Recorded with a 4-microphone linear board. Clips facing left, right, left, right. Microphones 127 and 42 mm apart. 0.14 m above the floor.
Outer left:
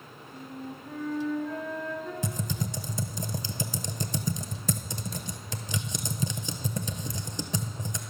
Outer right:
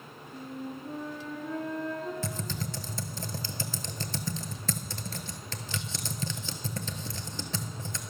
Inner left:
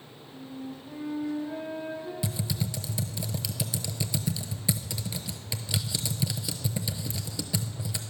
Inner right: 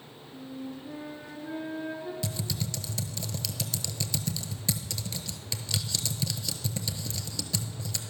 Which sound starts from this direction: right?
A flute, at 0.3 s.